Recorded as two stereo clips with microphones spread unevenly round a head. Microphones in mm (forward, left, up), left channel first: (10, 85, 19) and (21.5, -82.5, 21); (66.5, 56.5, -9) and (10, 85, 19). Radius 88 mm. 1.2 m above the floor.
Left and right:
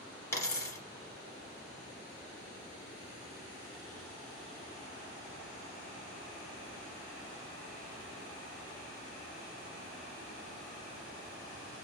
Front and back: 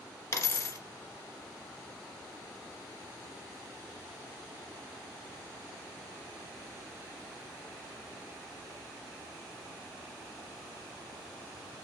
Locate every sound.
0.3 s a dropped coin: 25° left, 1.9 m